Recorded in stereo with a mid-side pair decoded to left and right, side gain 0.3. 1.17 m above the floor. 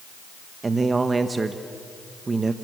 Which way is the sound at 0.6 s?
40° right.